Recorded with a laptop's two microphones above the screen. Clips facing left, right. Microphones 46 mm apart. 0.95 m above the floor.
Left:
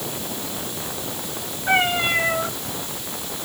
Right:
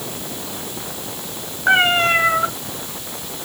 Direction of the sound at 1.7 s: 85° right.